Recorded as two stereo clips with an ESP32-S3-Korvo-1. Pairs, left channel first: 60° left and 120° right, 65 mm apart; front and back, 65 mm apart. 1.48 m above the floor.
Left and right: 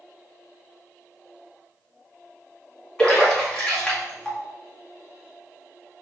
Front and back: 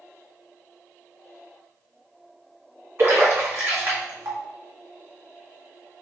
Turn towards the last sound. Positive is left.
turn(degrees=135)